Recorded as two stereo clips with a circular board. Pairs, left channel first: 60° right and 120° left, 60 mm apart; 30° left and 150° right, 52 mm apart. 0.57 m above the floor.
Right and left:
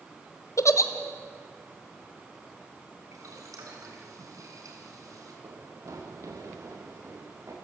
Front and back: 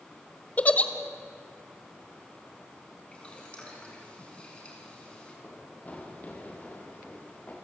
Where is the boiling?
100° left, 5 m.